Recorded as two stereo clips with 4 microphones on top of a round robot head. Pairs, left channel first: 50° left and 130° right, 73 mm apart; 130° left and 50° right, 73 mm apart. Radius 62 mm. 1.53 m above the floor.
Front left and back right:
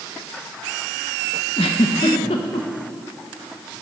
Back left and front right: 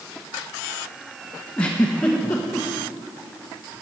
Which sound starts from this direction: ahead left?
A giggle, at 1.6 s.